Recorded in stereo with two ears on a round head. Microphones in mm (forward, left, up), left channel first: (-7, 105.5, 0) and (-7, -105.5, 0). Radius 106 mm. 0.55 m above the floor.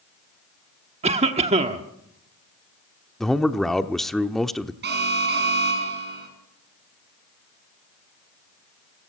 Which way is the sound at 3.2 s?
Centre (ahead or behind).